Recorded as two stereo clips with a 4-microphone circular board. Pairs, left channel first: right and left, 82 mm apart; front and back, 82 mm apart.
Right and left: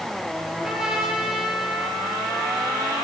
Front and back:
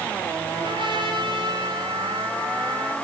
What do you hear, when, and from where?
0.5 s a trumpet: 175° left, 5 m